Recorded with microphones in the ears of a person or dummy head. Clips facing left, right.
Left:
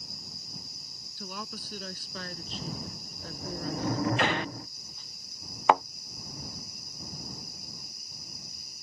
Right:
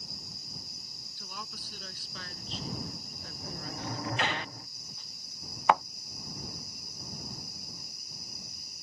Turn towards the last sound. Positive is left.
turn(degrees=20)  # may be behind; listen again after turning